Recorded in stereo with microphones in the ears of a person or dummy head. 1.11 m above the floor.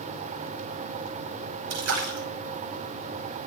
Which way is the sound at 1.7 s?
70° right (ahead or behind).